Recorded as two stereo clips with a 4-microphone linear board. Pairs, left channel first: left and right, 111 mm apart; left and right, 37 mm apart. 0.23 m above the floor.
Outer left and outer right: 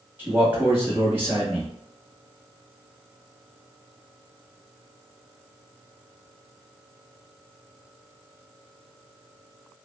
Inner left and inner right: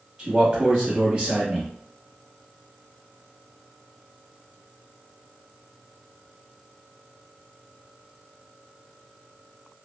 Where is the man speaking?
20° right (ahead or behind), 1.5 m.